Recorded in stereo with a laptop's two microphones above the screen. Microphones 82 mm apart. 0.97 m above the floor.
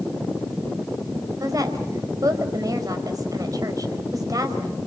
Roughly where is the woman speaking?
Right.